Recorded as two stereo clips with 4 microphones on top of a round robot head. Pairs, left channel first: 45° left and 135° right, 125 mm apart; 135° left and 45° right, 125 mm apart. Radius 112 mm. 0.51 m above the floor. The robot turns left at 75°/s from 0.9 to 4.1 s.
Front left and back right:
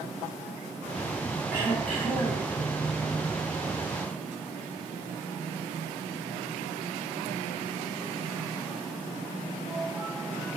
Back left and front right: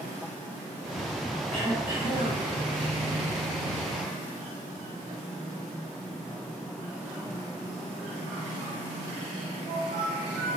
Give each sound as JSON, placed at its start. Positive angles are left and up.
{"t": 1.5, "sound": "throat clearing", "azimuth_deg": -85, "distance_m": 1.8}